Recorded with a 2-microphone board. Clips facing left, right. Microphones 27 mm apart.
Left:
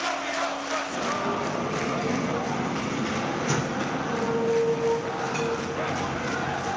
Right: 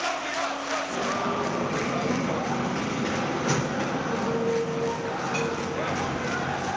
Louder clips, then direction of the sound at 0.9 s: Right 1 dB; 30° right (ahead or behind).